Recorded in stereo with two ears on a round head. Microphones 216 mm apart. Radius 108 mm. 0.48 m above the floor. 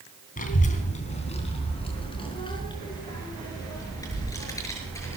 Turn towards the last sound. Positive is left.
turn(degrees=10)  # may be behind; listen again after turning